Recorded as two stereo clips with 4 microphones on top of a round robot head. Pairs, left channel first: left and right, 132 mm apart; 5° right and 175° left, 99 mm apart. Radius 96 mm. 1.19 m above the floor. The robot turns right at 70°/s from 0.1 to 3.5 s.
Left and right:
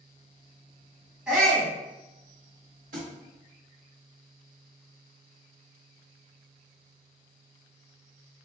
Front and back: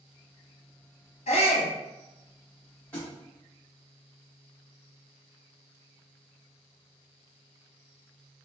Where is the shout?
5° right, 1.2 m; by 1.7 s 30° left, 1.2 m.